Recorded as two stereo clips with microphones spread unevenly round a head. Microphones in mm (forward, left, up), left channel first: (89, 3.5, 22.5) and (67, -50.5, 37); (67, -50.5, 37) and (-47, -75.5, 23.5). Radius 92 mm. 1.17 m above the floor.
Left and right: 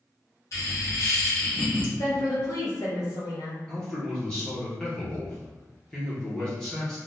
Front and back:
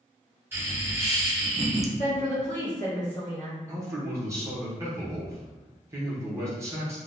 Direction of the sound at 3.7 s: 135° left.